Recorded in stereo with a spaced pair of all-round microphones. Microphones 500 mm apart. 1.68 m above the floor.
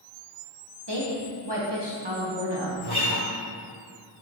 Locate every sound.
0.9 s a woman speaking: 55° right (ahead or behind), 1.8 m
2.8 s a guitar: 25° right (ahead or behind), 2.5 m